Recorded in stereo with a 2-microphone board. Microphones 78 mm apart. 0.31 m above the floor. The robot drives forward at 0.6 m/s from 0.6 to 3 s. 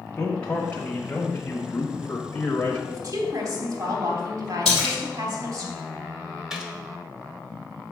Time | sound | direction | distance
0.2 | a man speaking | 15° left (ahead or behind) | 1.3 m
2.9 | a woman speaking | 55° right (ahead or behind) | 2.5 m
4.7 | a splash | 10° left (ahead or behind) | 3 m
6.5 | a gunshot | 10° right (ahead or behind) | 1.2 m